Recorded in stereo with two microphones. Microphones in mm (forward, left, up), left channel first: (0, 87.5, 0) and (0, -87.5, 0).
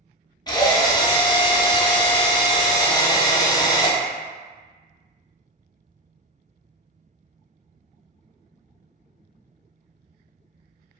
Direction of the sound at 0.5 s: 25° left (ahead or behind).